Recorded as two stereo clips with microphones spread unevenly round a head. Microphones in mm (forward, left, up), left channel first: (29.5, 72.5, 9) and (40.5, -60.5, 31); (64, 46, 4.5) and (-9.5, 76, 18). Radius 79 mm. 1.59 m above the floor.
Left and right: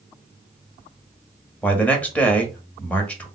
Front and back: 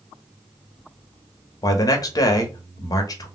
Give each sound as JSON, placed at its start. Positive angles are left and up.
{"t": 1.6, "sound": "a man speaking", "azimuth_deg": 15, "distance_m": 0.9}